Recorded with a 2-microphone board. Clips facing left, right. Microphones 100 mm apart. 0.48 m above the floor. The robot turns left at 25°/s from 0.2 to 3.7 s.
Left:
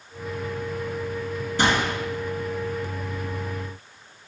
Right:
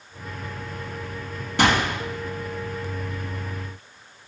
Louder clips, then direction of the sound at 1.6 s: Right 2 dB; 70° right (ahead or behind).